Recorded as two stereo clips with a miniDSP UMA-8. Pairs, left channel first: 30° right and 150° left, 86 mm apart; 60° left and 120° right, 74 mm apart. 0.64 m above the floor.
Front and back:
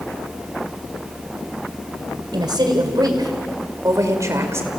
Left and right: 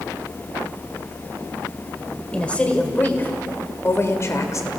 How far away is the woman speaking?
About 2.5 m.